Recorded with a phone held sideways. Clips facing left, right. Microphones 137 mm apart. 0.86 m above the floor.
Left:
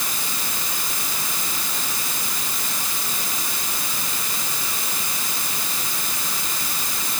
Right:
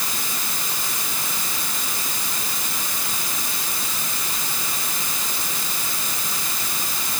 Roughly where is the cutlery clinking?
No cutlery clinking in this recording.